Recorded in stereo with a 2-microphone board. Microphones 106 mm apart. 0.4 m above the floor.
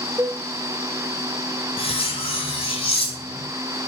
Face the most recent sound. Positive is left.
turn(degrees=60)  # may be behind; listen again after turning